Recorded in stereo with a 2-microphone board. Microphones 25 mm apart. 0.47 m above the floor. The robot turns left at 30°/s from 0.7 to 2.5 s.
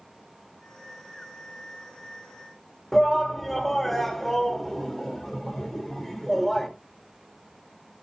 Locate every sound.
2.9 s a shout: 10° left (ahead or behind), 1.2 m